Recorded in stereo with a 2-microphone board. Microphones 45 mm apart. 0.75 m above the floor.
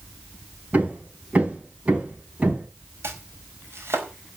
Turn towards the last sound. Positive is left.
turn(degrees=-80)